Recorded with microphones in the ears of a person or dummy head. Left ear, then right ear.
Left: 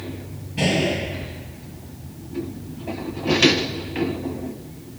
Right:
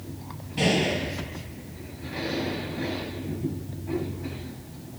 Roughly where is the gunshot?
Centre.